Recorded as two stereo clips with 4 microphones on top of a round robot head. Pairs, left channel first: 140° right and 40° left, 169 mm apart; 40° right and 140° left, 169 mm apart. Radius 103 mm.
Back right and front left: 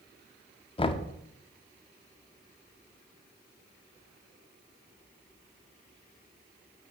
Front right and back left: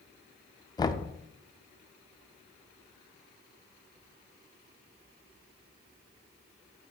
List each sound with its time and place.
0.8 s knocking: 95° right, 0.6 m